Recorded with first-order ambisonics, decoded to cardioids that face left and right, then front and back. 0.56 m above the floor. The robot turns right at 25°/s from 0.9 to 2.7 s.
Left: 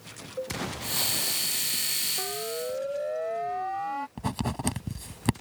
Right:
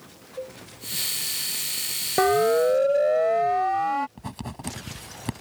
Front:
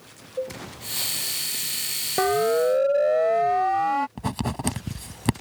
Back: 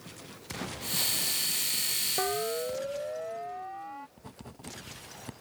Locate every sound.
0.4 s a cowbell: 5° left
2.2 s a siren: 60° right; by 4.1 s 20° right
4.2 s writing: 20° left